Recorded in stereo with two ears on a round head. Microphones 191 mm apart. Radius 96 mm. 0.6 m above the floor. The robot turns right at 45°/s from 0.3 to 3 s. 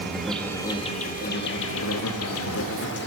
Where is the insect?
Straight ahead, 0.8 m; by 3.1 s 125° left, 0.8 m.